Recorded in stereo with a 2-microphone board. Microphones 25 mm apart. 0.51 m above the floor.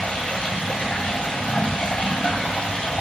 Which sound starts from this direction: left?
Running water, at 0.0 s.